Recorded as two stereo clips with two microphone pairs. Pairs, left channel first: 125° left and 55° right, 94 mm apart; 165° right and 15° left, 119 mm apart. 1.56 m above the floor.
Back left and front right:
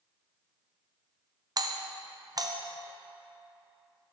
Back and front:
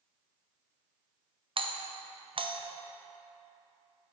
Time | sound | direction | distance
1.6 | a doorbell | 15° right | 0.6 m